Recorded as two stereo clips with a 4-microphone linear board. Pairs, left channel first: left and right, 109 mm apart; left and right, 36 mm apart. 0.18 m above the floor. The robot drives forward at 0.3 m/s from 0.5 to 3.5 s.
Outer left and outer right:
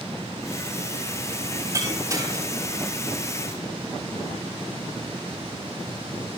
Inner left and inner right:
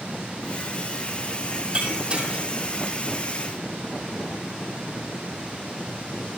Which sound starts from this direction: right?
Breaking glass, at 1.7 s.